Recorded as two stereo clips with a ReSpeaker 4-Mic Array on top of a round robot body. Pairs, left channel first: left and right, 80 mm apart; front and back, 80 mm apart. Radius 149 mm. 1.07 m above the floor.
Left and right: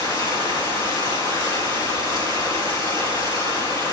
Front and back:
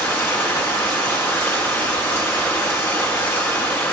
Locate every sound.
0.0 s running water: 60° left, 5 m